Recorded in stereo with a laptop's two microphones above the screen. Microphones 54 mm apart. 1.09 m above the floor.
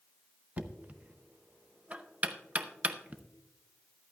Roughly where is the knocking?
Right.